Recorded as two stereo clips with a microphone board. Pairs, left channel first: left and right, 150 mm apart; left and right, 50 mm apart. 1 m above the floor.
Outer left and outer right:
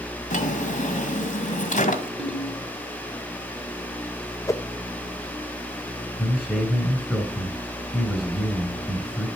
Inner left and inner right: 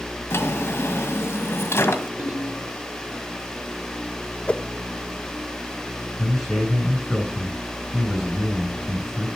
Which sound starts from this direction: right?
A ringtone, at 2.2 s.